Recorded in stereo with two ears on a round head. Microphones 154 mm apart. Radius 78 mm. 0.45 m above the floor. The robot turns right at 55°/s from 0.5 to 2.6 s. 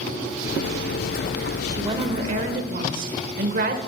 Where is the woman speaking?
155° right, 1.2 m; by 3.8 s 105° right, 1.2 m.